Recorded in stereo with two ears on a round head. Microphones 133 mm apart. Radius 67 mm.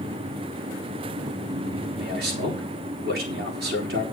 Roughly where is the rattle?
I don't hear a rattle.